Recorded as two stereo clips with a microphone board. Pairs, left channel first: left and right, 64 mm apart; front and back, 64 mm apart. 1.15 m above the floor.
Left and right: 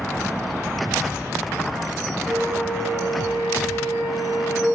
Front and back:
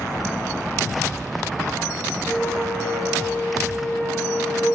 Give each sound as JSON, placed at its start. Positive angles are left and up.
{"t": 2.3, "sound": "a flute", "azimuth_deg": -80, "distance_m": 1.9}